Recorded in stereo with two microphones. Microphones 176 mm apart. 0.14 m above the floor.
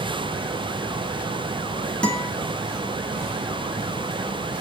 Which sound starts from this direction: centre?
A guitar, at 2.0 s.